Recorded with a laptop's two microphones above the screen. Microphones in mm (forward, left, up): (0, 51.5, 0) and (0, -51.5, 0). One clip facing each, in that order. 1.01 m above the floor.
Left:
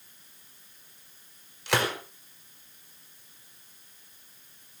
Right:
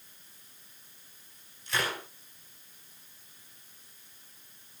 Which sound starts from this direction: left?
A gunshot, at 1.7 s.